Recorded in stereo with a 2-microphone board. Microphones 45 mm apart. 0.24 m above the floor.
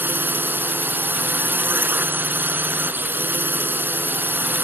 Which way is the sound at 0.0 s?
50° right (ahead or behind).